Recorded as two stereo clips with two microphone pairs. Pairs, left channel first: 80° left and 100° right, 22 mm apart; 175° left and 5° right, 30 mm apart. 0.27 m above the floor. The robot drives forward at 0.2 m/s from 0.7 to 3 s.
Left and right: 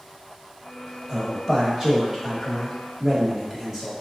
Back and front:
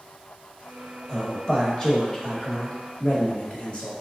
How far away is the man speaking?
About 1.0 m.